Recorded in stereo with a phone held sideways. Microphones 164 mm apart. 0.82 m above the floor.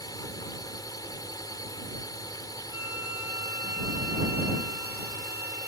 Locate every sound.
0.0 s a drone: 20° left (ahead or behind)
2.7 s a flute: 15° right (ahead or behind)